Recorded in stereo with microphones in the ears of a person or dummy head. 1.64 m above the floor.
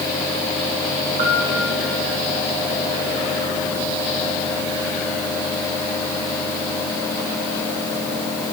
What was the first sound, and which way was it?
A piano, 55° right (ahead or behind).